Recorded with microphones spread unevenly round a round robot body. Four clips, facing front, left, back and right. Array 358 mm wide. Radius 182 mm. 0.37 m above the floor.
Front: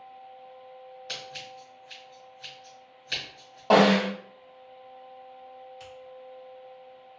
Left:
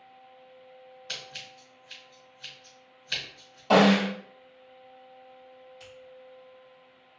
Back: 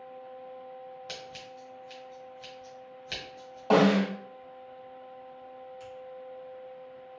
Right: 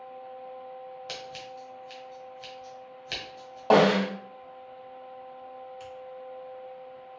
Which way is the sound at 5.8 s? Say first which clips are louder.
Right 7 dB, back 1 dB; 35° right.